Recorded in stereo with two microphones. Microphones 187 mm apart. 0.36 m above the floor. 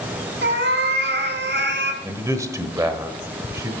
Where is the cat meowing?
80° right, 1.4 m.